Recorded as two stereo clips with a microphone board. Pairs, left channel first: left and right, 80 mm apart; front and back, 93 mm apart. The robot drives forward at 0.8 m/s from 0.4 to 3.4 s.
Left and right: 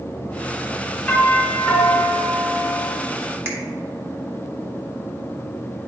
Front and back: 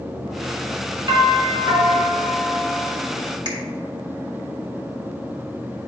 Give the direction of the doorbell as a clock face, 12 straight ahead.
7 o'clock.